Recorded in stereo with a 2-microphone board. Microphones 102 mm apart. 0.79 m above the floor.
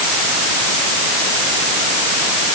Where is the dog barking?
I don't hear a dog barking.